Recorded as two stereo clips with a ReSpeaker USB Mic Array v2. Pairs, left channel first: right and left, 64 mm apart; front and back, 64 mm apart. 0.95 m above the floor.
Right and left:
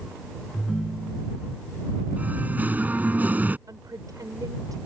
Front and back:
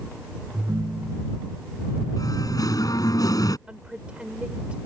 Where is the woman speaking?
110° left.